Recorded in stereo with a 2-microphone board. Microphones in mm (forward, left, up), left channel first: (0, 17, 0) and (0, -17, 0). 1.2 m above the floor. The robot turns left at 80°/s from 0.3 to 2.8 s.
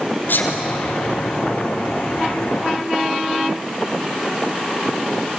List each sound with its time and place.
0.3 s a sneeze: 80° left, 4 m; by 0.6 s 60° left (ahead or behind), 4 m